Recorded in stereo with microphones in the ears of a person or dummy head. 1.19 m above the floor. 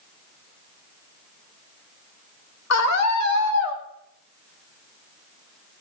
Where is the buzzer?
I don't hear a buzzer.